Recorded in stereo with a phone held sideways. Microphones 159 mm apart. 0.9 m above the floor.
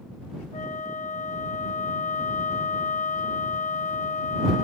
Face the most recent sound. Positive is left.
turn(degrees=55)  # may be behind; listen again after turning